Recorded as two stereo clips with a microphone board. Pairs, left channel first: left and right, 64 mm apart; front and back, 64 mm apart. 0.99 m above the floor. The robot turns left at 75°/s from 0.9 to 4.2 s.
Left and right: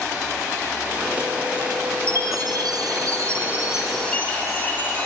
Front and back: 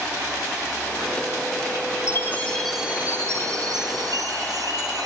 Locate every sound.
2.1 s a chime: 40° right, 9.5 m; by 5.1 s 160° left, 9.5 m